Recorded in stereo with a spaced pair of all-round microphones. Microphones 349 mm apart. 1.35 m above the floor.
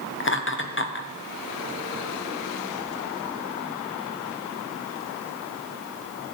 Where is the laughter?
35° left (ahead or behind), 1.0 m.